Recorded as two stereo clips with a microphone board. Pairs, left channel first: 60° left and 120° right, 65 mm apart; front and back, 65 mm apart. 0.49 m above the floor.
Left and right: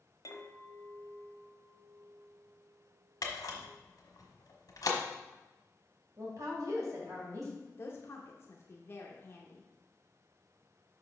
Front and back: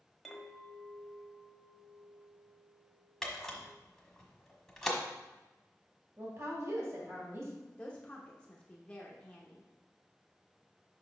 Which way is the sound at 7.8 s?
60° left.